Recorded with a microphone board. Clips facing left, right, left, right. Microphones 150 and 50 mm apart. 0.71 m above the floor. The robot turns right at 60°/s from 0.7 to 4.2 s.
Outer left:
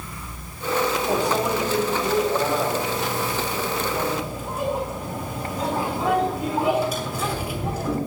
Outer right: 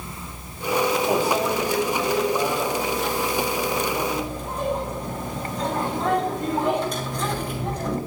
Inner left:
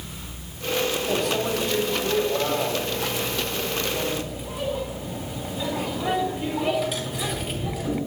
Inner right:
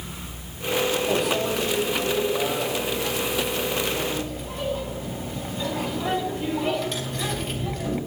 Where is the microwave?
15° right (ahead or behind), 4.5 m; by 8.0 s 5° left (ahead or behind), 4.5 m.